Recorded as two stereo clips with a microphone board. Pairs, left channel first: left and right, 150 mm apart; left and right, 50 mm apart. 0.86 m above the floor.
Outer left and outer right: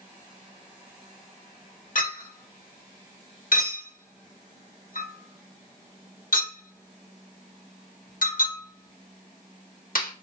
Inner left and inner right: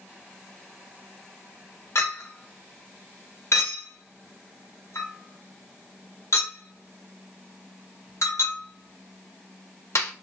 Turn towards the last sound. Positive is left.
turn(degrees=70)  # may be behind; listen again after turning